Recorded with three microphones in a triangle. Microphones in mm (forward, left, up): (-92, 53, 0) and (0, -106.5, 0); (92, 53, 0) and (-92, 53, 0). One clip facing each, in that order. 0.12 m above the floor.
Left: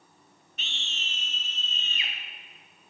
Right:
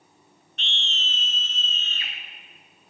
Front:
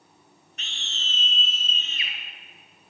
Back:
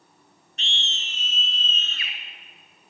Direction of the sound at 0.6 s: 160° right.